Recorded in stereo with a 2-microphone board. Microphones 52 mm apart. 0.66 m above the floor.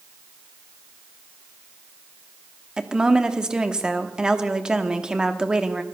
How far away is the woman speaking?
About 1.1 m.